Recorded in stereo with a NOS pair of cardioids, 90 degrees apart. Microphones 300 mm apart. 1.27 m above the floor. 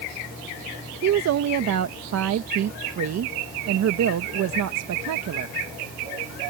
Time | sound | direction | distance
1.0 | a woman speaking | 60° right | ?